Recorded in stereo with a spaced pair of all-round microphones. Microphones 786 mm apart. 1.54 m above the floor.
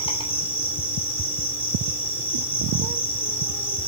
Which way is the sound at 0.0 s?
5° left (ahead or behind).